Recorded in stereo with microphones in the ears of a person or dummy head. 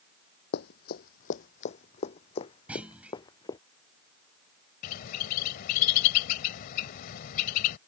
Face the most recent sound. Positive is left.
turn(degrees=50)  # may be behind; listen again after turning